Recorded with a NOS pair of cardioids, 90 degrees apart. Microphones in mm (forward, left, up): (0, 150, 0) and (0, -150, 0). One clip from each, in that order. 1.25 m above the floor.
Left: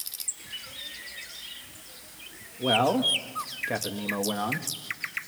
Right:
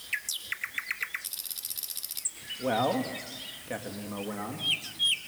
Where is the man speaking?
15° left, 2 m; by 4.7 s 45° left, 2.5 m.